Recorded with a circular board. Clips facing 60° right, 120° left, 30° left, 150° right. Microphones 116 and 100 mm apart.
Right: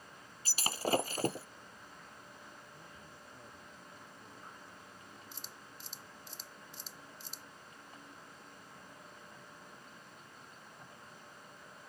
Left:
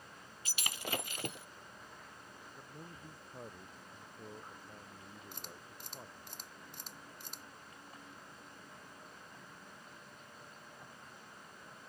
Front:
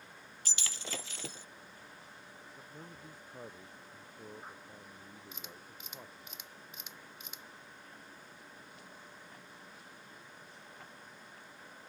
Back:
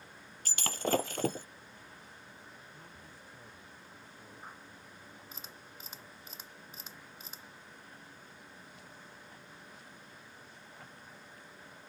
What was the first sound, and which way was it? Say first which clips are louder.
Breaking glass: right 8 dB, back 13 dB; 110° right.